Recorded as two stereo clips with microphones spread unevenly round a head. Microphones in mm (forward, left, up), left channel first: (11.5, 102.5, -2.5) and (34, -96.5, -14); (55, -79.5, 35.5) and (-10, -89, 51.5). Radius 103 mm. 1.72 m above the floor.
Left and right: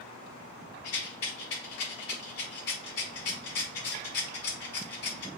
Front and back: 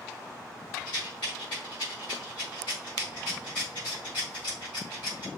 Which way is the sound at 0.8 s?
85° left.